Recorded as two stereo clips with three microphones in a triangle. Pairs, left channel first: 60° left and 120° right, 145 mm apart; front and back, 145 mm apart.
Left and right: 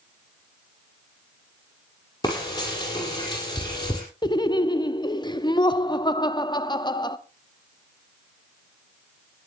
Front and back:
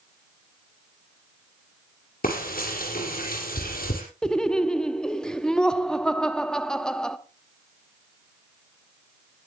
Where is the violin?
I don't hear a violin.